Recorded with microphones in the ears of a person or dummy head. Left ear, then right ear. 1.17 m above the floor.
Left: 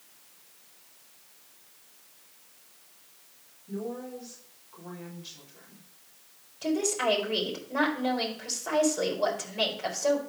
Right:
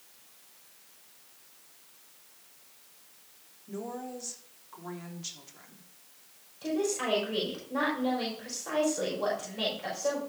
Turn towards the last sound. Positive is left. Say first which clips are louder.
# left 3 dB
turn(degrees=20)  # may be behind; listen again after turning